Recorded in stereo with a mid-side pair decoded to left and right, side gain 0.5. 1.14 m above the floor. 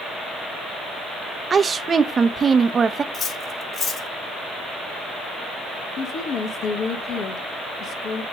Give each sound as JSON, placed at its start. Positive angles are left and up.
{"t": 1.5, "sound": "a woman speaking", "azimuth_deg": -35, "distance_m": 1.0}
{"t": 3.1, "sound": "cutlery clinking", "azimuth_deg": 45, "distance_m": 3.0}
{"t": 6.0, "sound": "a woman speaking", "azimuth_deg": 60, "distance_m": 1.5}